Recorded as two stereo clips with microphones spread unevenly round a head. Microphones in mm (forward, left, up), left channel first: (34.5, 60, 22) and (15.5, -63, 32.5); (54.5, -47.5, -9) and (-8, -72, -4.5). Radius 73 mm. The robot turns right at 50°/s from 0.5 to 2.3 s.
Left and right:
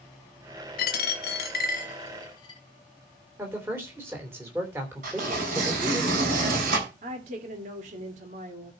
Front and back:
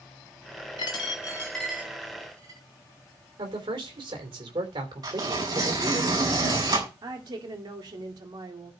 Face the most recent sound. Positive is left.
turn(degrees=-140)